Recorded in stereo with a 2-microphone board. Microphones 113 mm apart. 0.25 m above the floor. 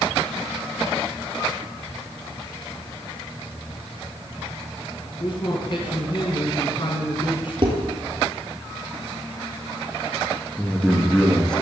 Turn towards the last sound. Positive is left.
turn(degrees=5)  # may be behind; listen again after turning